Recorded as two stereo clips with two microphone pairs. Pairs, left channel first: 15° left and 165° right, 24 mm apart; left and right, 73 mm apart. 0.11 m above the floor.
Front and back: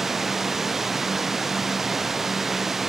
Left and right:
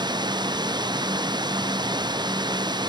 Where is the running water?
85° right.